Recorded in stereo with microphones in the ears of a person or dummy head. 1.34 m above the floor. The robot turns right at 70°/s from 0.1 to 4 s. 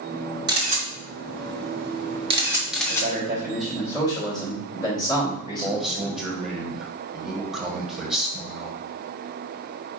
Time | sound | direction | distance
0.5 | a camera shutter | 20° right (ahead or behind) | 1.3 m
2.9 | a man speaking | 55° right | 3 m
5.6 | a man speaking | 5° right (ahead or behind) | 1.1 m